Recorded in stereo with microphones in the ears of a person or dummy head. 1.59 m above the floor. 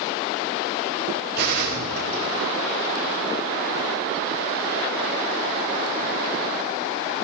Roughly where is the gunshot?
Right.